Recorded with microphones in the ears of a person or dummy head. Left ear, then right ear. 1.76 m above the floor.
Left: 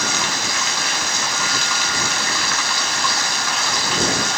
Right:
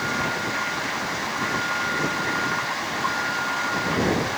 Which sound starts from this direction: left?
Running water, at 0.0 s.